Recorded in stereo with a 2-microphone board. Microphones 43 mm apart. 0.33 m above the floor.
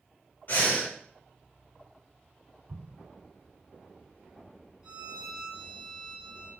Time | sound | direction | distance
0.5 | breathing | 45° left (ahead or behind) | 1.5 m
2.7 | an explosion | 55° right (ahead or behind) | 0.7 m
4.8 | a violin | 15° right (ahead or behind) | 2 m